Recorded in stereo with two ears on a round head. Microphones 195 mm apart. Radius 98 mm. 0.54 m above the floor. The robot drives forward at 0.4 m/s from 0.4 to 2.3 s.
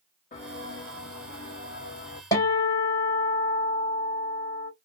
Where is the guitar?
15° left (ahead or behind), 2 m.